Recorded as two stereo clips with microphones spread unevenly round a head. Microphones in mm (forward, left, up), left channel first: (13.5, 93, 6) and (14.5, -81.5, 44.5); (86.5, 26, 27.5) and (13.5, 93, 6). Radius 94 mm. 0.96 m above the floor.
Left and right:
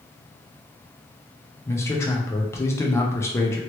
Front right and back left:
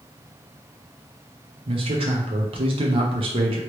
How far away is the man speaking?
About 0.7 m.